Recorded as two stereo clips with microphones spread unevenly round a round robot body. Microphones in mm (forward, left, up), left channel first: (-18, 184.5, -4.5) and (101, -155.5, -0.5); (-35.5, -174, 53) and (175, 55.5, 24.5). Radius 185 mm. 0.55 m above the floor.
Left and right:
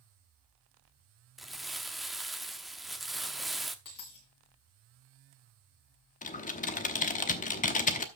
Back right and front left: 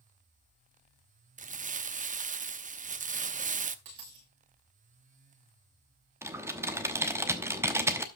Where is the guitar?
No guitar in this recording.